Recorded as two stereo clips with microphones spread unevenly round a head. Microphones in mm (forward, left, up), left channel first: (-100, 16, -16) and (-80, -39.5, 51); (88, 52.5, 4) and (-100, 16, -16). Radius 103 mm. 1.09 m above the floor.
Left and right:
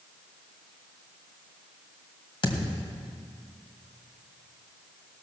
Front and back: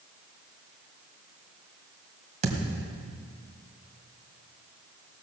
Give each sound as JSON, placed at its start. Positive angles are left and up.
{"t": 2.4, "sound": "a thud", "azimuth_deg": 135, "distance_m": 2.0}